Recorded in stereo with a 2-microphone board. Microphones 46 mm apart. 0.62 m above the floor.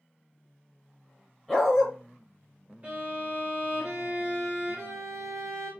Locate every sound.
1.5 s a dog barking: centre (ahead or behind), 1.9 m
2.8 s a violin: 40° right (ahead or behind), 2.5 m